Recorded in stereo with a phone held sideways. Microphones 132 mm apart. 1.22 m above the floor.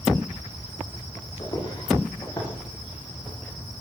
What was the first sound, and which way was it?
Footsteps, 30° left (ahead or behind).